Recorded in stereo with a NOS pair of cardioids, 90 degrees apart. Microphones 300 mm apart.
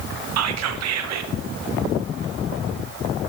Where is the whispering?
60° right, 0.9 m.